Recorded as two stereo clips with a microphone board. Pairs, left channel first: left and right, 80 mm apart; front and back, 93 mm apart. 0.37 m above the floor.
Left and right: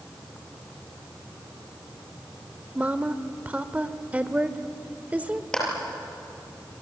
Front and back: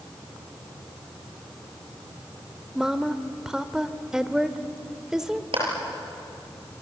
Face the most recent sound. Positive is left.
turn(degrees=170)